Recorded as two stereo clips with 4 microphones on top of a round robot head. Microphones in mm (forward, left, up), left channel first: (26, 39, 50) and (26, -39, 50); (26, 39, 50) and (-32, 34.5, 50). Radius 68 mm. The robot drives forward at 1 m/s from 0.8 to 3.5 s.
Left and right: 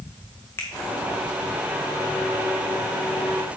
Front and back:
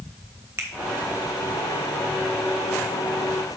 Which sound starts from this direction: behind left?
A finger snap, at 0.6 s.